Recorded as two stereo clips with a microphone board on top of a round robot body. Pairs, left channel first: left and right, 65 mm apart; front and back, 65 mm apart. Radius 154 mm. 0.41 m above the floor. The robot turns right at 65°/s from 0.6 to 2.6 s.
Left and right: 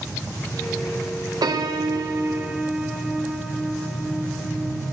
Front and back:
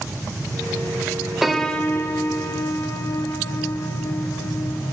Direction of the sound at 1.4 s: 95° right.